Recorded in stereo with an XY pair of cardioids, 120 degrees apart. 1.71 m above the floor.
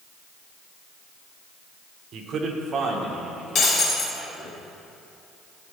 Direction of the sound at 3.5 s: 40° left.